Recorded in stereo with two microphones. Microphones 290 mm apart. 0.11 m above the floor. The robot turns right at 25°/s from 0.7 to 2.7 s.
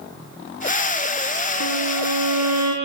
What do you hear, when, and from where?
1.6 s a violin: 75° right (ahead or behind), 6.5 m; by 2.7 s 70° right (ahead or behind), 6.5 m